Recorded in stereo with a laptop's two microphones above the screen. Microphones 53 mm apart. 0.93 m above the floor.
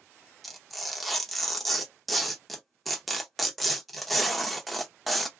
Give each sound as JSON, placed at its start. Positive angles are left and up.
{"t": 0.4, "sound": "tearing paper", "side_deg": 0, "distance_m": 0.5}